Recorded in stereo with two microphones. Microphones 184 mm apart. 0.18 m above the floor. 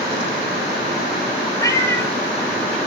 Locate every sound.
1.6 s a cat meowing: 20° left (ahead or behind), 1.1 m; by 2.8 s 5° left (ahead or behind), 2.5 m